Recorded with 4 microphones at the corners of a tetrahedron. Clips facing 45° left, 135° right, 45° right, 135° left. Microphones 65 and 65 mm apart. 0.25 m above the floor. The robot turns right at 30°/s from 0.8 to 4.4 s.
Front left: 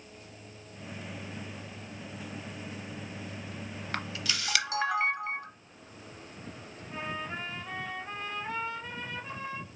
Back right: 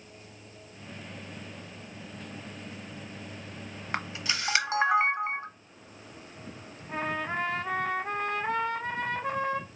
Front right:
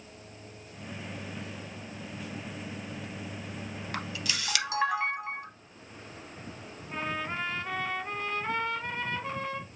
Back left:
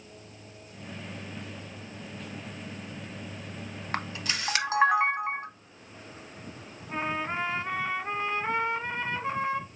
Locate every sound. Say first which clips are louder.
3.9 s a camera shutter: back right 3 dB, back left 3 dB; 160° left, 0.6 m; by 5.5 s 175° left, 0.6 m
6.9 s a trumpet: back right 6 dB, back left 3 dB; 160° right, 0.5 m